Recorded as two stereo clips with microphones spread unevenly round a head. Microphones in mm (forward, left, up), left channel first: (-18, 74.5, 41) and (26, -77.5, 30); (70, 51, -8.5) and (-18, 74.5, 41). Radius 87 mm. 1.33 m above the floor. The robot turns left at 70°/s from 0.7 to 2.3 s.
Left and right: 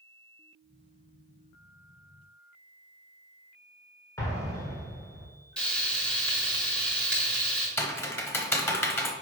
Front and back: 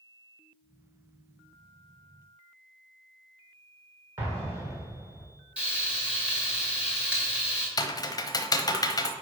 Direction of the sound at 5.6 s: 175° right.